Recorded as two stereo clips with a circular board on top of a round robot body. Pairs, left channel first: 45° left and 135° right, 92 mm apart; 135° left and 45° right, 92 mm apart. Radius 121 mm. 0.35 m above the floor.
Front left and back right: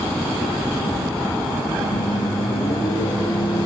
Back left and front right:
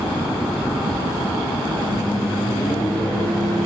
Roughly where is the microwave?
Left.